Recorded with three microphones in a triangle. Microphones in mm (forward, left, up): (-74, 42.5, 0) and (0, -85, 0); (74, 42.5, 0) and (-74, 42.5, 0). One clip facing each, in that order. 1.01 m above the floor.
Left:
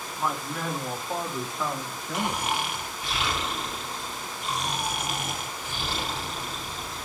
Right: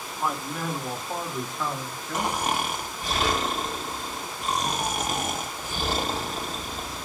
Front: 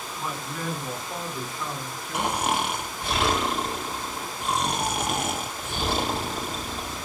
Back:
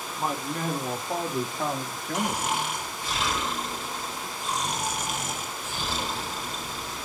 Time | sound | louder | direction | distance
0.2 | a man speaking | right 1 dB, back 4 dB | 145° right | 2 m
2.1 | snoring | right 2 dB, front 3 dB | 20° right | 1.9 m